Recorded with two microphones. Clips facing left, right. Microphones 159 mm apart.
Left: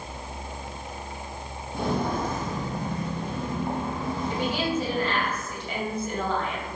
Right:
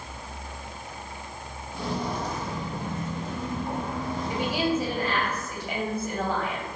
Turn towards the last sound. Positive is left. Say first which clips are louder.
# right 2 dB
turn(degrees=-10)  # may be behind; listen again after turning